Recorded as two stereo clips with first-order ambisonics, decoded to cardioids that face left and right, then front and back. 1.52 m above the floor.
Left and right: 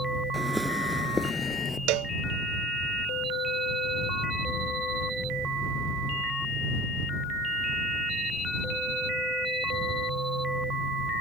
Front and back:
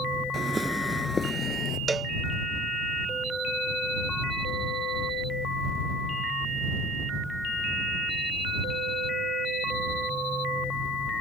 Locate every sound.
0.3 s footsteps: 160° right; by 1.8 s 30° left
1.9 s a cowbell: 105° right